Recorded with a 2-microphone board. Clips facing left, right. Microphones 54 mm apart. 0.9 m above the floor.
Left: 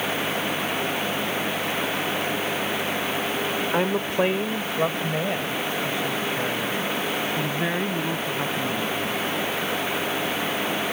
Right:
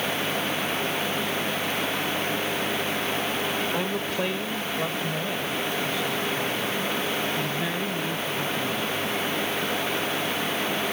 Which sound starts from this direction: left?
A woman speaking, at 3.7 s.